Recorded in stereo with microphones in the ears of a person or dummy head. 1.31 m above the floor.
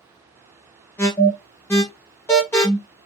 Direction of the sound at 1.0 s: 10° left (ahead or behind).